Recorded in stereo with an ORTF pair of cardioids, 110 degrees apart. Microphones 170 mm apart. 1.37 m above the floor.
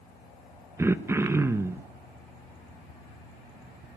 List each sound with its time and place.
0.8 s throat clearing: 15° right, 1.0 m